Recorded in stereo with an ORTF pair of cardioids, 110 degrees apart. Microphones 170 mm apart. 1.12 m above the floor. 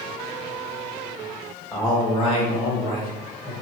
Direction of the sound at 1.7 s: 20° left.